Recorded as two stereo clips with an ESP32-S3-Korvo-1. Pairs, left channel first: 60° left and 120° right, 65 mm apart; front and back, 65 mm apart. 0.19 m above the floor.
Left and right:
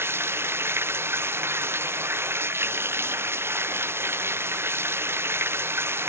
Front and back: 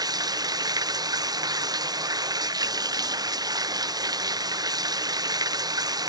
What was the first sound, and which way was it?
Running water, 170° right.